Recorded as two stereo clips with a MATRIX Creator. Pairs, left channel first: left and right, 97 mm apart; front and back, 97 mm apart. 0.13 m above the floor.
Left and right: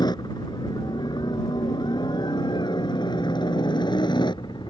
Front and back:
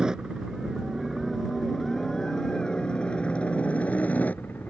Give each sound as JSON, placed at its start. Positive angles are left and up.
{"t": 0.0, "sound": "a helicopter", "azimuth_deg": 100}